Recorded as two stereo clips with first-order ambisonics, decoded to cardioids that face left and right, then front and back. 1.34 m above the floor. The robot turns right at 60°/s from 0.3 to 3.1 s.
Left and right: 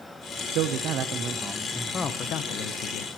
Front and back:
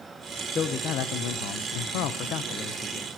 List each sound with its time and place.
0.5 s a man speaking: 65° right, 1.0 m; by 3.2 s 85° left, 1.0 m